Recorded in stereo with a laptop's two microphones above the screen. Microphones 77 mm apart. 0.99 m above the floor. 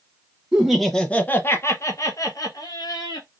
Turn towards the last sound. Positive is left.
turn(degrees=55)  # may be behind; listen again after turning